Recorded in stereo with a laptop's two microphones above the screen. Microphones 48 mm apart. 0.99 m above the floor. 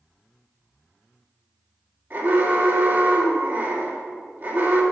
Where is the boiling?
I don't hear boiling.